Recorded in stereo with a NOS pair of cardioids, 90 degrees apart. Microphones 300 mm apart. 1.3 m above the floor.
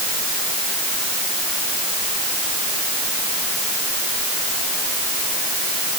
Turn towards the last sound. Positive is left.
No sound to turn to.